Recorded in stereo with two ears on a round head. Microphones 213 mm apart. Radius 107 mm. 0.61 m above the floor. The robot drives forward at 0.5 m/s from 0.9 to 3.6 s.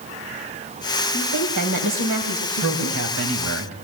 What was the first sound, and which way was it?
A woman speaking, 70° right (ahead or behind).